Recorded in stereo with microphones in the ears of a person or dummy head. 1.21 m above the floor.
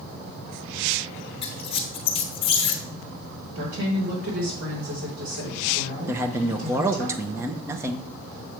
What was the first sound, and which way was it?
A squeak, 30° left (ahead or behind).